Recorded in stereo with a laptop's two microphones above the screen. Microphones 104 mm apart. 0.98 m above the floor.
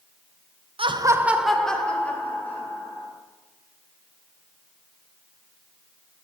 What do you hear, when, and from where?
0.8 s laughter: 60° right (ahead or behind), 0.5 m; by 3.1 s 20° left (ahead or behind), 2.5 m